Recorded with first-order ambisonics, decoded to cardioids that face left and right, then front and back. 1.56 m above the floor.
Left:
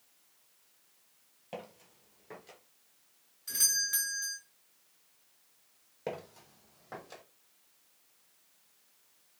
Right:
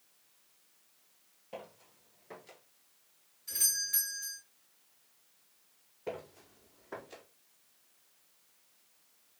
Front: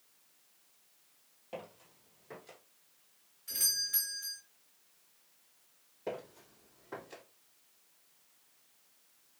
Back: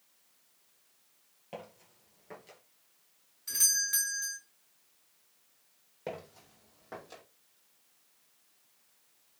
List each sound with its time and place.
1.5 s footsteps: 125° left, 1.8 m; by 2.6 s 145° right, 1.5 m
3.5 s a doorbell: 155° left, 2.5 m
6.1 s footsteps: 125° left, 2.5 m; by 7.2 s 150° left, 2.5 m